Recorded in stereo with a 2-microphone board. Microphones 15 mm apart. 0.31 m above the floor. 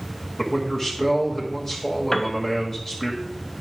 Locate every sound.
0.4 s a man speaking: 30° left (ahead or behind), 1.5 m
2.1 s a piano: 35° left (ahead or behind), 0.7 m